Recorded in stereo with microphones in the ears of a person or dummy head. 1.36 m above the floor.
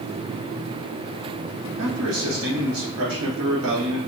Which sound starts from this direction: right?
A man speaking, at 1.8 s.